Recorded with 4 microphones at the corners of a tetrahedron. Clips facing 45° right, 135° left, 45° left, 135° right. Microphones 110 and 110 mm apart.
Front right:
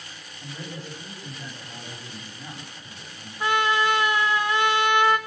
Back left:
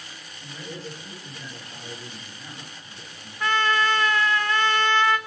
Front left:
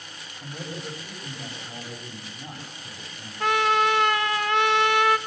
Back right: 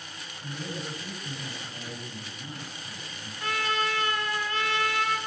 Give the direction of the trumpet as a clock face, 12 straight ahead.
11 o'clock.